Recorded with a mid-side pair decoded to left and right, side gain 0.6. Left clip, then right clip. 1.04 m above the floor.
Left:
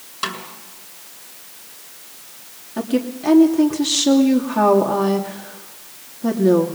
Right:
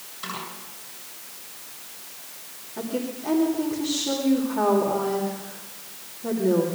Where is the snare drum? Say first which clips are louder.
Left 7 dB; 65° left, 6.5 m.